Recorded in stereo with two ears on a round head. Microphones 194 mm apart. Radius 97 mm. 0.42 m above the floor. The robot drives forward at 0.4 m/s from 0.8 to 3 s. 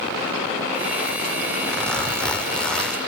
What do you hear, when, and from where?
1.7 s a zipper: 5° left (ahead or behind), 1.2 m